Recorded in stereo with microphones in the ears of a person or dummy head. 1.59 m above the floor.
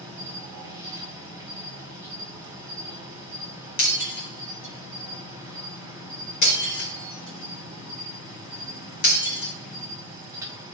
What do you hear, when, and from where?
0.0 s an insect: 15° right (ahead or behind), 2 m
3.8 s breaking glass: 60° left (ahead or behind), 4 m